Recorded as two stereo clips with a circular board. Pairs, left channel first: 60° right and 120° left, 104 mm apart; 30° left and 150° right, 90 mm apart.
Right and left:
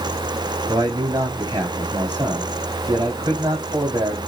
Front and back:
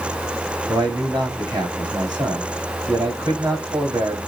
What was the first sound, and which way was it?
A man speaking, 170° left.